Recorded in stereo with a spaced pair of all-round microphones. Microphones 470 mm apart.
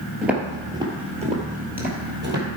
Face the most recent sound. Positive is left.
turn(degrees=-25)  # may be behind; listen again after turning